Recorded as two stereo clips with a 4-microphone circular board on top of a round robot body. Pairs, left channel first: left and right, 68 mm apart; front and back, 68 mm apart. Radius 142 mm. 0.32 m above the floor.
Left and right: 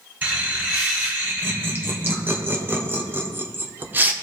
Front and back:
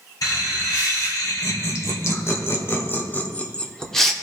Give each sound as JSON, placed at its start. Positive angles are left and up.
{"t": 0.2, "sound": "laughter", "azimuth_deg": -30, "distance_m": 3.5}